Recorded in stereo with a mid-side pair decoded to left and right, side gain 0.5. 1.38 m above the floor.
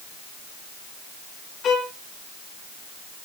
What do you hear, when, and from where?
1.6 s a violin: 55° left, 1.3 m